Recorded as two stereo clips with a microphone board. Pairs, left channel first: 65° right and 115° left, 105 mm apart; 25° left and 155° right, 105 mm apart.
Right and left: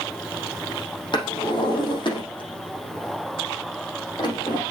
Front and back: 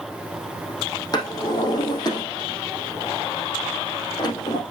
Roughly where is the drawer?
Ahead right.